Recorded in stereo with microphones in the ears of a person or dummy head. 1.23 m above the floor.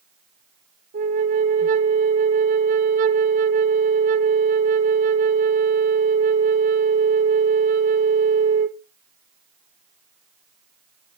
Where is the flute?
40° right (ahead or behind), 1.0 m.